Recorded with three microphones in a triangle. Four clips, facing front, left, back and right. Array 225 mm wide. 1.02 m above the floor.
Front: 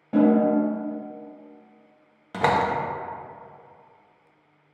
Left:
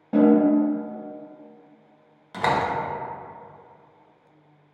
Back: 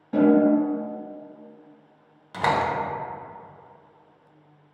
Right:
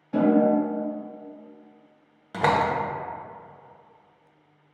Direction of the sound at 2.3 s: 30° right.